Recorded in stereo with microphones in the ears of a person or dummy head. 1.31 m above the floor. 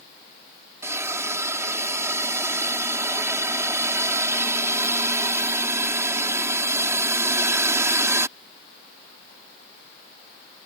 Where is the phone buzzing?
No phone buzzing in this recording.